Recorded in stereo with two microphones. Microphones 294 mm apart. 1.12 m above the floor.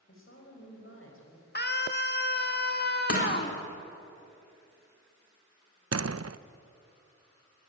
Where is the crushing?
50° left (ahead or behind), 4 m.